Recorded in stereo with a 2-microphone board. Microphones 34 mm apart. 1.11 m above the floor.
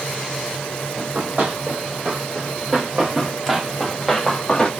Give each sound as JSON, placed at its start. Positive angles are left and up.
{"t": 1.0, "sound": "running footsteps", "side_deg": -45, "distance_m": 2.0}